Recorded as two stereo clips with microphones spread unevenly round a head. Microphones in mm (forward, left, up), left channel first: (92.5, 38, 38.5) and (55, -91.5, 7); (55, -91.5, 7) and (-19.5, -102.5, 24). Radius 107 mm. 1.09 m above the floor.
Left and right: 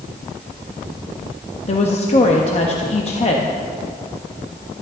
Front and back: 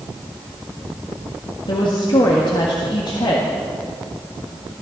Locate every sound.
1.7 s a woman speaking: 30° left, 1.5 m